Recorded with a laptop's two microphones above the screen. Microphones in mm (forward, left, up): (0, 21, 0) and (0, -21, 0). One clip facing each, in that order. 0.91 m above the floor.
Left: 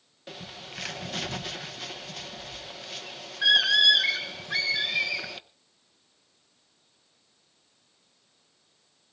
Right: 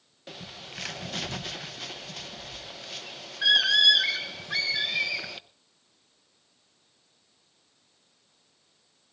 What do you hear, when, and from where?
0.3 s a bird: 5° left (ahead or behind), 0.7 m